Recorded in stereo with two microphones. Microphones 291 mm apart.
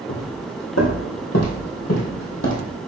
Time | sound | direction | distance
0.1 | footsteps | 65° left (ahead or behind) | 2.5 m